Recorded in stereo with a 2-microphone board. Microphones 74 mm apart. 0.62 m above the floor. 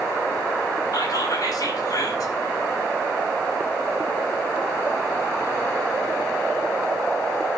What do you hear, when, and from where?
0.9 s whispering: 60° left (ahead or behind), 6.5 m